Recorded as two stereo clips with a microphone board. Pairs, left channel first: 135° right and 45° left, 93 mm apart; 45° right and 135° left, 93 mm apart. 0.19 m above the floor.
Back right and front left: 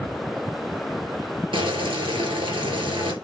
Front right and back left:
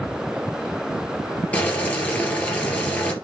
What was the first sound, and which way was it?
Boiling, 30° left.